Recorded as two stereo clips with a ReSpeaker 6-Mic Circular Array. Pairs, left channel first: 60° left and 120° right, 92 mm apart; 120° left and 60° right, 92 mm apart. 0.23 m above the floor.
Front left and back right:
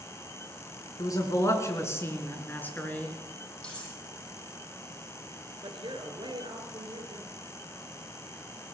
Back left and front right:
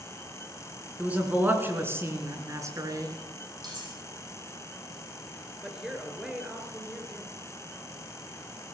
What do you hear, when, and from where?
1.0 s a man speaking: 15° left, 3 m; by 3.1 s 15° right, 3 m
3.6 s cutlery clinking: 20° right, 7 m
5.6 s a woman speaking: 140° right, 3.5 m